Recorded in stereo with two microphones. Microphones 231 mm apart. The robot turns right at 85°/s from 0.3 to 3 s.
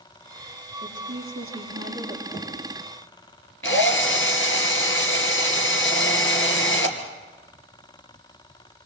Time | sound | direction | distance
0.8 | a woman speaking | 120° right | 8 m
2.3 | knocking | 35° left (ahead or behind) | 9.5 m
3.6 | a drill | 65° left (ahead or behind) | 3 m